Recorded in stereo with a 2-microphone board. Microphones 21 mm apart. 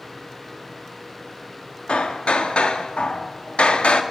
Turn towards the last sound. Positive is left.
turn(degrees=85)